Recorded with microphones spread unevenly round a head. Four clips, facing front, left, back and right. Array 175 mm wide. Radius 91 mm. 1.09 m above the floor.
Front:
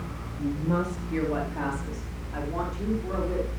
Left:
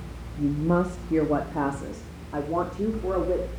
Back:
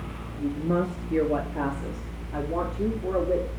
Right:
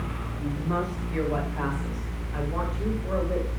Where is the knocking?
I don't hear knocking.